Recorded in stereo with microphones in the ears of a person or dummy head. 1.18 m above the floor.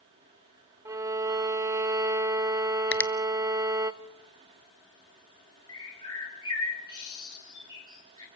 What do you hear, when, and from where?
0.8 s a violin: 15° right (ahead or behind), 0.6 m
2.9 s a finger snap: 5° left (ahead or behind), 0.6 m
5.7 s a bird: 20° left (ahead or behind), 6 m